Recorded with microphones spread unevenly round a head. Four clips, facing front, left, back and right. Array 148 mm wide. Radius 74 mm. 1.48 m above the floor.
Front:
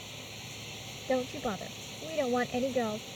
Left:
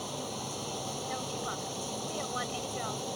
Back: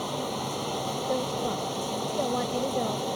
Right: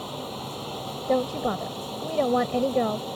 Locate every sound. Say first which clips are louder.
0.0 s running water: right 4 dB, back 17 dB; 170° right
1.1 s a woman speaking: right 17 dB, even; 90° right